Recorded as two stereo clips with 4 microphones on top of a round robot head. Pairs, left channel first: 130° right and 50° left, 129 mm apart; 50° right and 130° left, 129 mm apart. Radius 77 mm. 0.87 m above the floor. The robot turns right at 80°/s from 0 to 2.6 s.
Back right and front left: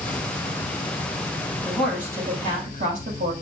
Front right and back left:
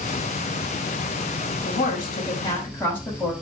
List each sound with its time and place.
1.6 s a woman speaking: 55° right, 5 m; by 3.3 s 25° left, 5 m